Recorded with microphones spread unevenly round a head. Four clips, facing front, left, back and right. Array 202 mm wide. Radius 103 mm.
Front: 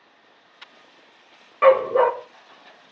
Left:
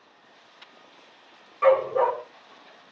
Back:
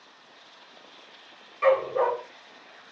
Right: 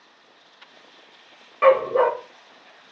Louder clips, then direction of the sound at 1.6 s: Right 3 dB, front 7 dB; 40° right.